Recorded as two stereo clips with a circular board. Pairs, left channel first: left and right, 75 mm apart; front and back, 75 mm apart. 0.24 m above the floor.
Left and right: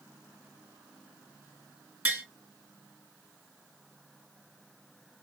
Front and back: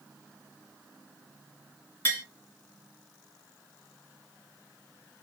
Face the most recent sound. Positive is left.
turn(degrees=-40)